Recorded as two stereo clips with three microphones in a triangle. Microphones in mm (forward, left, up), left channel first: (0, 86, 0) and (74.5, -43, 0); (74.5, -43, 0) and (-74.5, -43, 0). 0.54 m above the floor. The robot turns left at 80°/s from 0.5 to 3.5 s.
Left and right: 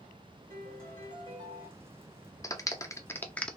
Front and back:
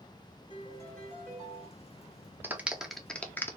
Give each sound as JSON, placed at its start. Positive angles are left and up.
{"t": 0.5, "sound": "a piano", "azimuth_deg": -45, "distance_m": 2.0}
{"t": 2.4, "sound": "a clap", "azimuth_deg": 130, "distance_m": 0.5}